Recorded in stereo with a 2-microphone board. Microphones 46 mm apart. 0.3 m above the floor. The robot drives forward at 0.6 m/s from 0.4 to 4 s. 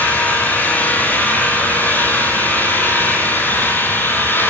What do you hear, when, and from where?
0.0 s an engine running: 35° left (ahead or behind), 10 m; by 4.5 s 45° left (ahead or behind), 8 m